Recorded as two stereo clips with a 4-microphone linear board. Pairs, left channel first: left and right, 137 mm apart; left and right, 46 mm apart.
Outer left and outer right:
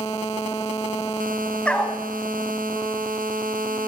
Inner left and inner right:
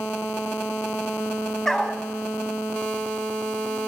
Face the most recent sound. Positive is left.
turn(degrees=10)  # may be behind; listen again after turning